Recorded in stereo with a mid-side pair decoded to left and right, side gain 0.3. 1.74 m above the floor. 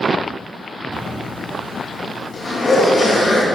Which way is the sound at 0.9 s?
70° left.